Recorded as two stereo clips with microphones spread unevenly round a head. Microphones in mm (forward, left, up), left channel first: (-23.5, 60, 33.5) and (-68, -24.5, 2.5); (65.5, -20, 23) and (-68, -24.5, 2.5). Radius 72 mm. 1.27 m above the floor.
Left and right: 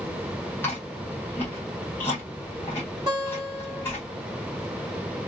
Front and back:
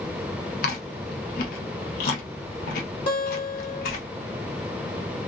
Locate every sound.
0.6 s chewing: 5° right, 0.8 m
3.1 s a guitar: 45° right, 1.5 m